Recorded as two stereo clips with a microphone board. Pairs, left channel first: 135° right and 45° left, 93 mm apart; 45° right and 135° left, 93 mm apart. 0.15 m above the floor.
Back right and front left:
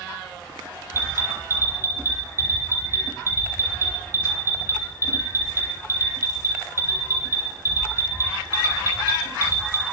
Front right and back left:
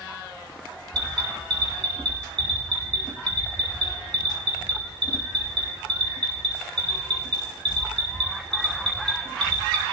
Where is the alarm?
105° left, 4.5 m.